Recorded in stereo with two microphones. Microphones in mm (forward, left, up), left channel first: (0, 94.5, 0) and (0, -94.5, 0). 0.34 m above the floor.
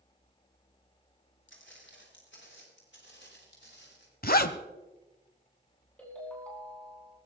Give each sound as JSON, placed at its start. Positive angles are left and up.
{"t": 1.5, "sound": "footsteps", "side_deg": 80, "distance_m": 5.5}
{"t": 4.2, "sound": "a zipper", "side_deg": 50, "distance_m": 0.9}
{"t": 6.0, "sound": "a ringtone", "side_deg": 5, "distance_m": 8.5}